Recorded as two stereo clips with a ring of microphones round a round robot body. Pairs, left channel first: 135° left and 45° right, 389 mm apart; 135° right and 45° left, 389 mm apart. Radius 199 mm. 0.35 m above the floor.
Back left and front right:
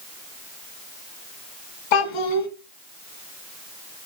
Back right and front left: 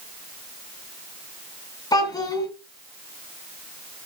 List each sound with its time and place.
1.9 s a child speaking: 145° left, 2.5 m